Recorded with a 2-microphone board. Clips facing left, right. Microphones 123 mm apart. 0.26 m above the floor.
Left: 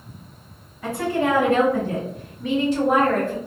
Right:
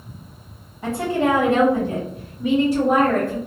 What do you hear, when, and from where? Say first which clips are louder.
0.8 s a woman speaking: right 2 dB; 25° right (ahead or behind), 1.5 m; by 3.4 s 5° right (ahead or behind), 1.8 m